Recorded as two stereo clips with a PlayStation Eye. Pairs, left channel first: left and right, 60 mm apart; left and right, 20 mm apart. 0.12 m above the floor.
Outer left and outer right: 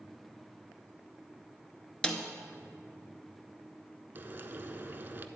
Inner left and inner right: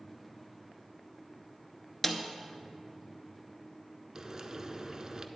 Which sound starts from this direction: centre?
A snare drum, at 2.0 s.